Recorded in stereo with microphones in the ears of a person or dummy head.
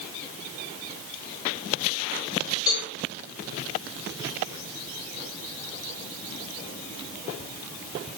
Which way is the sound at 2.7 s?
25° left (ahead or behind).